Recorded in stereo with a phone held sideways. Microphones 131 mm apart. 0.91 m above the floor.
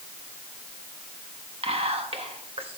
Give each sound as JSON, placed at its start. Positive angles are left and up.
{"t": 1.6, "sound": "whispering", "side_deg": -45, "distance_m": 1.2}